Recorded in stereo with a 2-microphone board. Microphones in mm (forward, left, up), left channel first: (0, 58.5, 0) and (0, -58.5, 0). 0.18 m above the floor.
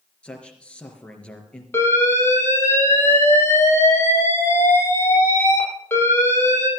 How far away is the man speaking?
About 4 m.